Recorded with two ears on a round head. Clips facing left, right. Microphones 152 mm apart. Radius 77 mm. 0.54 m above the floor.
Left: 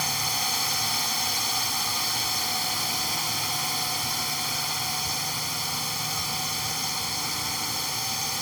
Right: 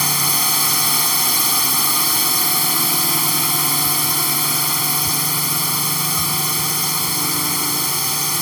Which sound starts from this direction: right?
A drone, at 0.0 s.